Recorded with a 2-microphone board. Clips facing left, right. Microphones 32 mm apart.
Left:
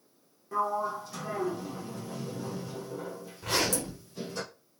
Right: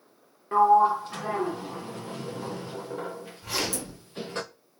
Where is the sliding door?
45° right (ahead or behind), 0.6 m.